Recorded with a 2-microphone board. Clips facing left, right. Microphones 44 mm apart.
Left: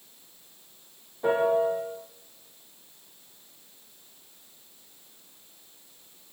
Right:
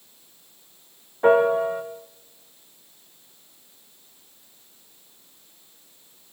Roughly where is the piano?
Right.